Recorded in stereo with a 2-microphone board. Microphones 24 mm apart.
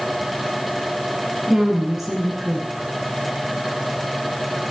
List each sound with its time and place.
1.5 s a woman speaking: 10° right (ahead or behind), 2.5 m